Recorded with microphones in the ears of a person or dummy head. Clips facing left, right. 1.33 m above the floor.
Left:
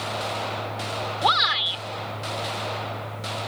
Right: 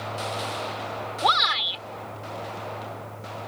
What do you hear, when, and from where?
1.2 s a shout: 5° left (ahead or behind)